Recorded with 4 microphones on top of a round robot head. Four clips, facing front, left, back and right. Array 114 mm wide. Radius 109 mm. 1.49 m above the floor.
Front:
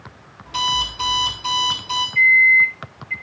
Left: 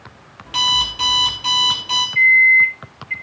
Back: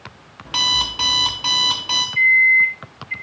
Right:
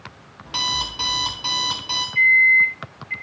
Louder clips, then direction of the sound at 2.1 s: Left 3 dB, front 1 dB; 75° left.